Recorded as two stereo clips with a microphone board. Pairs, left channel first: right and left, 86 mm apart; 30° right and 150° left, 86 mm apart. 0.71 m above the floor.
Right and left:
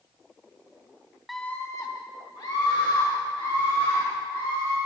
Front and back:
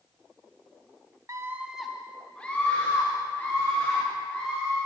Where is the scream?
175° left, 0.9 m; by 4.8 s 90° right, 5.5 m.